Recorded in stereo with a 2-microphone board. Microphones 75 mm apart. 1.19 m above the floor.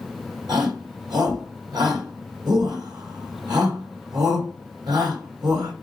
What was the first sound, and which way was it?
A shout, 75° right (ahead or behind).